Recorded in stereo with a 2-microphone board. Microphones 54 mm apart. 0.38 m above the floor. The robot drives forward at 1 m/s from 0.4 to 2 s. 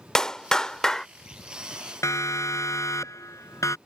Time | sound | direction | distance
0.1 | a clap | 15° left (ahead or behind) | ?
2.0 | a siren | 70° left (ahead or behind) | ?